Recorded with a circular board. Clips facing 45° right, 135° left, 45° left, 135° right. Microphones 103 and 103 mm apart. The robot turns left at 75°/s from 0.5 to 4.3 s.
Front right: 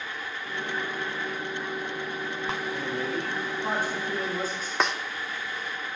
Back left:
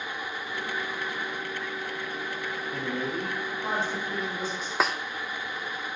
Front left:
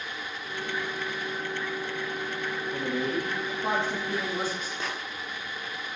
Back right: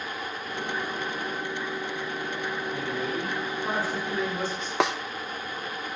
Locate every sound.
2.7 s a man speaking: 120° left, 5.5 m; by 4.7 s straight ahead, 5.5 m
4.8 s a snare drum: 140° right, 1.0 m